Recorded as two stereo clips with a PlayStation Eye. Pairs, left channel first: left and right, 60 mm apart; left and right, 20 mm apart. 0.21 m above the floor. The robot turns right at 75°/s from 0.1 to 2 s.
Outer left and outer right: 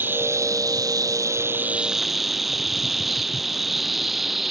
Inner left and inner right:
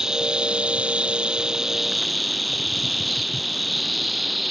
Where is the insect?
145° right; by 4.5 s straight ahead.